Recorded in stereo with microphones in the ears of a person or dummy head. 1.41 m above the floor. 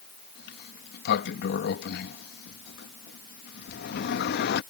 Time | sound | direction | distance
0.3 | a sliding door | 65° left (ahead or behind) | ?